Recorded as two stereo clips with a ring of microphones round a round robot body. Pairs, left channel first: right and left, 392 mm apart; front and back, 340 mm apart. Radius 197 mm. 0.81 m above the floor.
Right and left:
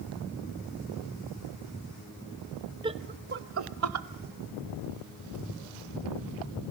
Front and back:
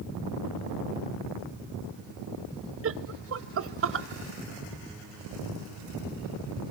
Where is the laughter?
160° left, 0.9 m; by 4.1 s 130° left, 1.4 m.